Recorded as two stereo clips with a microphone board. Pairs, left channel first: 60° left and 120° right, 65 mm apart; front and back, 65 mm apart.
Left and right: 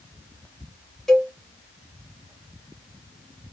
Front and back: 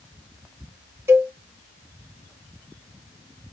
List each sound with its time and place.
1.1 s a cowbell: 145° left, 0.9 m